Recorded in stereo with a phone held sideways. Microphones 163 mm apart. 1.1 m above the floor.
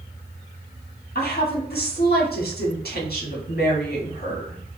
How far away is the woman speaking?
About 1.8 m.